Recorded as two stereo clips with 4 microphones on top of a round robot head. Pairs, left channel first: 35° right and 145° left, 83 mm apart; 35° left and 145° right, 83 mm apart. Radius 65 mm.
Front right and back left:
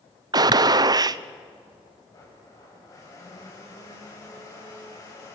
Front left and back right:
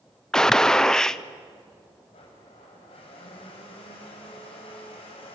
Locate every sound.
0.3 s a gunshot: 115° left, 0.7 m
2.1 s a blender: 20° left, 5 m